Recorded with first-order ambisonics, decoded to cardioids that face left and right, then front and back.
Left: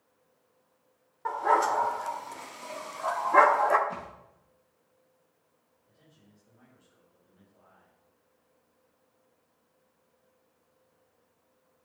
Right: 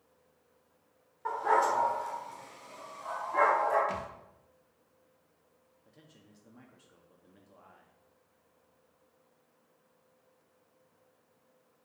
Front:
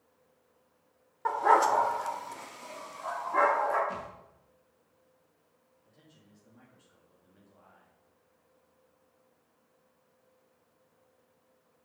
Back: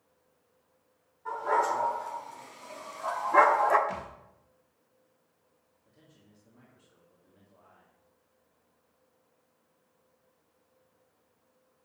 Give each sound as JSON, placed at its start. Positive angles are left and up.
{"t": 1.2, "sound": "a dog barking", "azimuth_deg": 15, "distance_m": 1.4}
{"t": 3.9, "sound": "a thud", "azimuth_deg": -110, "distance_m": 2.0}
{"t": 5.8, "sound": "a man speaking", "azimuth_deg": -85, "distance_m": 1.4}